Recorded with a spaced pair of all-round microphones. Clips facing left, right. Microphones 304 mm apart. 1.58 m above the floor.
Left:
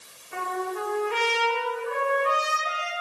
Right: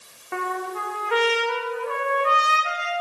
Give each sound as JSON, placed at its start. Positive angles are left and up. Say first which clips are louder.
{"t": 0.3, "sound": "a trumpet", "louder": "right 1 dB", "side_deg": -75, "distance_m": 1.5}